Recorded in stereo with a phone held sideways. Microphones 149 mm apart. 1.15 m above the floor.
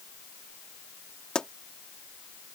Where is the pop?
5° left (ahead or behind).